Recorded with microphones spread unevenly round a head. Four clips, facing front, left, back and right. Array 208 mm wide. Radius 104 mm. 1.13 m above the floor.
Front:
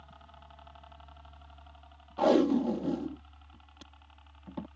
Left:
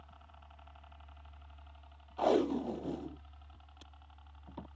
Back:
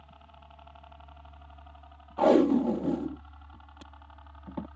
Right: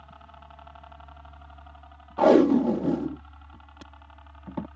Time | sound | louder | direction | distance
0.0 | a helicopter | right 10 dB, even | 95° right | ?
2.2 | tape being pulled | right 12 dB, back 3 dB | 100° right | ?